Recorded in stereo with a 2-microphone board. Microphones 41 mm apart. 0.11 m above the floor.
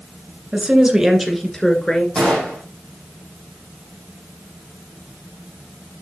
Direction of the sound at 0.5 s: 25° right (ahead or behind).